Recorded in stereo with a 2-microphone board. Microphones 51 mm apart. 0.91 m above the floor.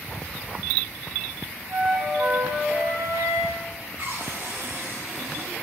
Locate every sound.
1.7 s a flute: 80° right, 4 m
4.0 s a cupboard door: 55° right (ahead or behind), 3 m